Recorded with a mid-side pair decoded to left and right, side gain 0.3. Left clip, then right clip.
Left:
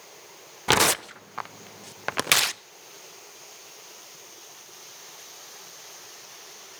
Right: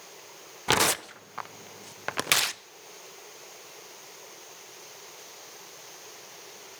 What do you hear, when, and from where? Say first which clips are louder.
0.7 s tearing paper: left 3 dB; 35° left, 0.6 m